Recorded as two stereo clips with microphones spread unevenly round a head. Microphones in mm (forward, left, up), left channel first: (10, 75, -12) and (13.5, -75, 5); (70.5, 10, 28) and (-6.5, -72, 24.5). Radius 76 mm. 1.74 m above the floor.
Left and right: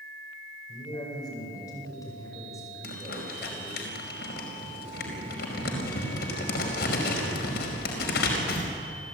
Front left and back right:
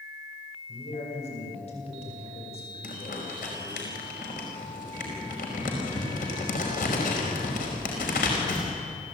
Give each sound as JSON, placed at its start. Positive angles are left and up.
{"t": 0.7, "sound": "a man speaking", "azimuth_deg": 25, "distance_m": 8.5}
{"t": 2.8, "sound": "crumpling", "azimuth_deg": 70, "distance_m": 5.0}